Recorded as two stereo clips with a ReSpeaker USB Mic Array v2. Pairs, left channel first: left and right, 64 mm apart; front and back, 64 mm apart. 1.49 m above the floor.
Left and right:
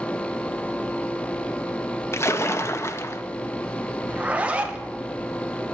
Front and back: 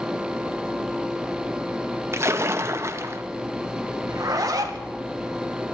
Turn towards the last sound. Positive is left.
turn(degrees=-160)